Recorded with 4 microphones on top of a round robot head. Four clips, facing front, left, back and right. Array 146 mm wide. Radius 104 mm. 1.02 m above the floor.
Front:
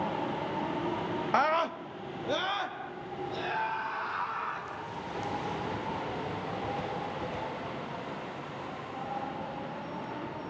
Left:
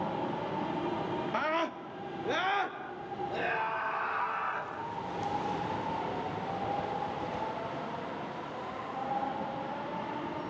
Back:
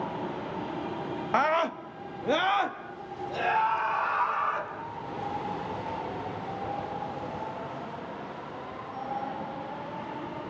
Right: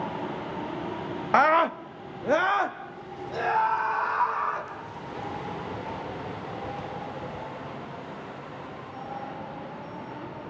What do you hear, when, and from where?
1.3 s a scream: 90° right, 0.9 m; by 4.7 s 120° right, 5 m